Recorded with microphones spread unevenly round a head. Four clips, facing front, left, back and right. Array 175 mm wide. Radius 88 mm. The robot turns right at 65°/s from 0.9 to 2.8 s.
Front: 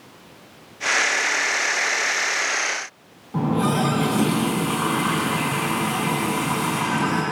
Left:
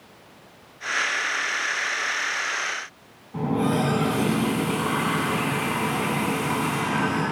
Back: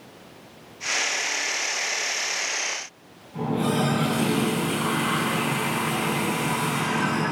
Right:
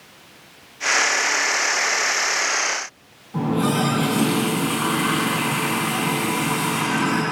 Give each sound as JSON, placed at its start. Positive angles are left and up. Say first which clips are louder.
{"t": 3.3, "sound": "a running tap", "louder": "right 2 dB, front 3 dB", "azimuth_deg": -15, "distance_m": 9.0}